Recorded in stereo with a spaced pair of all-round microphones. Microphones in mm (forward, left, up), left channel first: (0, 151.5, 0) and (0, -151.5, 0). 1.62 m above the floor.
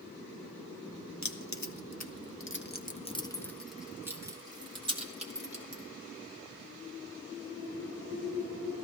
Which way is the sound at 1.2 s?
65° left (ahead or behind).